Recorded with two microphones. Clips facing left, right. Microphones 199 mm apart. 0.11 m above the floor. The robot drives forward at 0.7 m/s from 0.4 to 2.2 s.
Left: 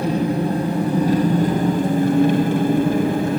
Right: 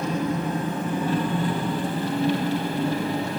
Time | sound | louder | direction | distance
0.0 | an engine running | left 6 dB | 35° left (ahead or behind) | 2.5 m